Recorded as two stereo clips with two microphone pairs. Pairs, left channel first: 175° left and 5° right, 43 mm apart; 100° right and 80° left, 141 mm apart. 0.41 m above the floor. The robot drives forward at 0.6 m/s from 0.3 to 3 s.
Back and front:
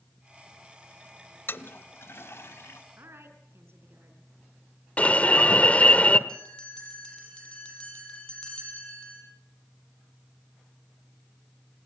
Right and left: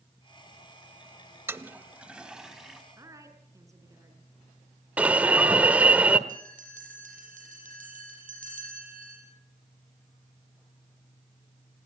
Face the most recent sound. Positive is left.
turn(degrees=100)